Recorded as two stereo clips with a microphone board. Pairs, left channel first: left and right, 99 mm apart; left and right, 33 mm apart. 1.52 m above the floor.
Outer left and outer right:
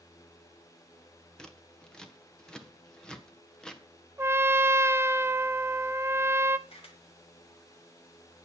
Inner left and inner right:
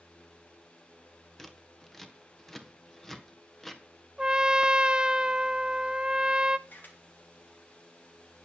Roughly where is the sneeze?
I don't hear a sneeze.